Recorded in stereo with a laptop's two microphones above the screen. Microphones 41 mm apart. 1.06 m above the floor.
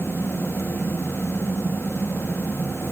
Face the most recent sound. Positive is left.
turn(degrees=85)